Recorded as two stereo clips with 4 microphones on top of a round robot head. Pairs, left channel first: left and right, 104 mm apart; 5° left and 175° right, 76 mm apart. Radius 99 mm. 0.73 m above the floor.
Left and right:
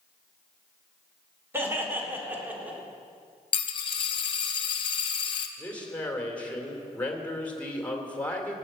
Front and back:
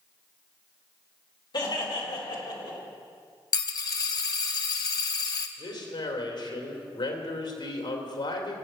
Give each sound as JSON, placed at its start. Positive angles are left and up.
{"t": 1.5, "sound": "laughter", "azimuth_deg": -20, "distance_m": 3.5}
{"t": 3.5, "sound": "a dropped coin", "azimuth_deg": 45, "distance_m": 0.8}
{"t": 5.6, "sound": "a man speaking", "azimuth_deg": 10, "distance_m": 2.5}